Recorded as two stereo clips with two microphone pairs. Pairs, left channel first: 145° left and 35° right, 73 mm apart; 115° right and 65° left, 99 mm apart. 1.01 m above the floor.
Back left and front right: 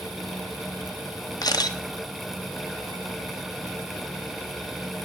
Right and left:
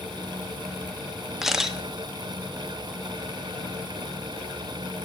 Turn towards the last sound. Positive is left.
turn(degrees=150)